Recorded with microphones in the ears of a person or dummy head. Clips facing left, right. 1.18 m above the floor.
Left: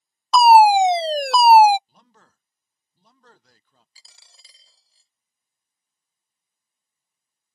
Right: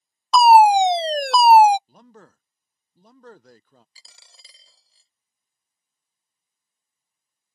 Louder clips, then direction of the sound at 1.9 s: Right 10 dB; 40° right (ahead or behind).